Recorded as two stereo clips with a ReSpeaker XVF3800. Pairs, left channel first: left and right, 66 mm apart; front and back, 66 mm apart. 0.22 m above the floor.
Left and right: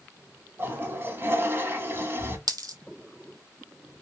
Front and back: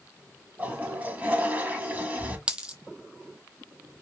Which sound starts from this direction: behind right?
A toilet flushing, at 0.6 s.